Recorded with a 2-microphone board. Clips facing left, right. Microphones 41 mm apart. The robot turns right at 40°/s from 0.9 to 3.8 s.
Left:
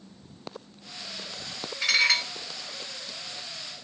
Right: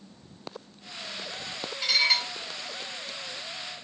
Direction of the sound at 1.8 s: 85° left.